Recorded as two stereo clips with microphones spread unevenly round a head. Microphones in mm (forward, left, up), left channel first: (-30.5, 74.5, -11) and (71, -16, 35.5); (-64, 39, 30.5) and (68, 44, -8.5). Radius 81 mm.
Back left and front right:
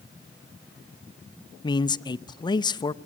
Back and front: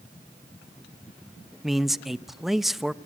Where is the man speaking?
85° left, 0.7 m.